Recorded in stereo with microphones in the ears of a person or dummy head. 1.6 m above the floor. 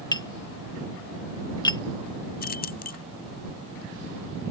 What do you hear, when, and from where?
0.1 s tapping: 20° left (ahead or behind)
2.4 s keys jangling: 45° left (ahead or behind)